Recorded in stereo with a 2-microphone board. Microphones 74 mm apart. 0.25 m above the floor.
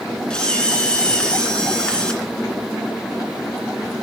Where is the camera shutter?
10° left (ahead or behind), 2 m.